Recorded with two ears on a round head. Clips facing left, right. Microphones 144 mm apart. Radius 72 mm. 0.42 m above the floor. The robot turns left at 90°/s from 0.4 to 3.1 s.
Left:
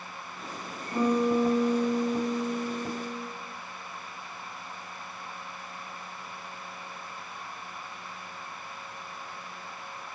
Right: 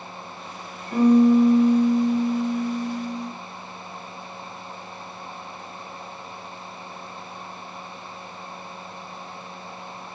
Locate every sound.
0.9 s a piano: 85° right, 1.6 m; by 3.3 s 80° left, 1.6 m